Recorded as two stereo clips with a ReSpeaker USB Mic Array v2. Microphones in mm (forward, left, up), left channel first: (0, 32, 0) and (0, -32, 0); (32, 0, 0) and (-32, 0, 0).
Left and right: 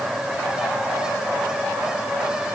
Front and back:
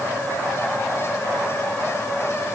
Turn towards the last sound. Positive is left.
No sound to turn to.